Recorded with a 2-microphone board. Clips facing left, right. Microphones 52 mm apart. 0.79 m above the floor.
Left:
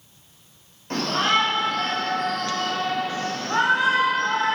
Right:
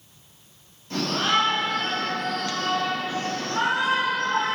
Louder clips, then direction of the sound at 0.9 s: Left 2 dB; 60° left (ahead or behind).